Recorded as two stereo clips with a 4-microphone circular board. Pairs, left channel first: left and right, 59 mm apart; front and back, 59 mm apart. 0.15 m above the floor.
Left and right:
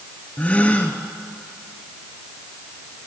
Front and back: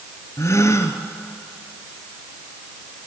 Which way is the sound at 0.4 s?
25° left.